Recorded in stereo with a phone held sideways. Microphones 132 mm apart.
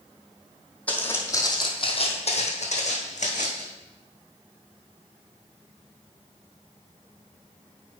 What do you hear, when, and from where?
0.9 s footsteps: 10° left (ahead or behind), 1.5 m; by 3.6 s 65° left (ahead or behind), 2.5 m